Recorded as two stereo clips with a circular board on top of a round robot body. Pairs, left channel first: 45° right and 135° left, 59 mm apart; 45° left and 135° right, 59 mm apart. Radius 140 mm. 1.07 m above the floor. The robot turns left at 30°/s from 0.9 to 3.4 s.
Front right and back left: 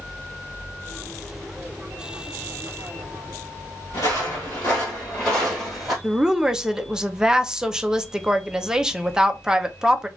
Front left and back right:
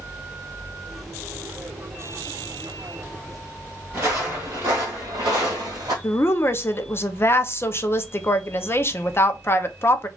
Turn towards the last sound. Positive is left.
turn(degrees=60)